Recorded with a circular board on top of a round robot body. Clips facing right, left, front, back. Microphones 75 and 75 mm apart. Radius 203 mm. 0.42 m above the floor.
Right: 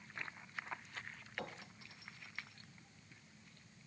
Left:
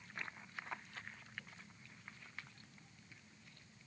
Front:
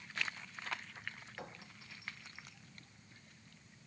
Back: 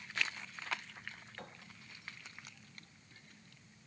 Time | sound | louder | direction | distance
1.4 | a clink | right 7 dB, front 2 dB | 85° right | ?